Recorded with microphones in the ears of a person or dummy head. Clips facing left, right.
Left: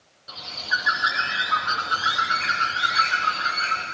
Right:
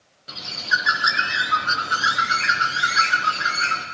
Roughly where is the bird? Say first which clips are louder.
Right 3 dB; right.